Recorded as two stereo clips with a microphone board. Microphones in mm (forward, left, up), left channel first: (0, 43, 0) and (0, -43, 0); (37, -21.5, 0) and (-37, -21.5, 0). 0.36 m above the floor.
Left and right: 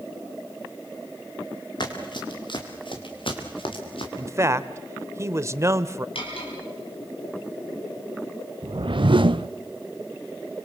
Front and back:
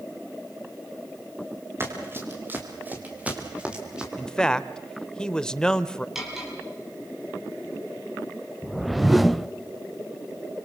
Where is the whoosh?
90° right, 0.5 m.